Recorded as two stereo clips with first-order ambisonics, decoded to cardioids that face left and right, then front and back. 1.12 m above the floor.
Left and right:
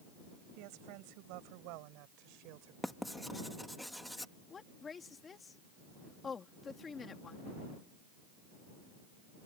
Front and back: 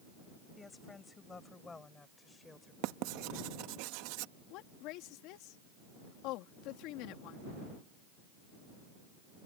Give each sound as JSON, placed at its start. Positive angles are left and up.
{"t": 0.6, "sound": "a woman speaking", "azimuth_deg": -75}
{"t": 2.8, "sound": "writing", "azimuth_deg": 180}
{"t": 4.5, "sound": "a woman speaking", "azimuth_deg": 20}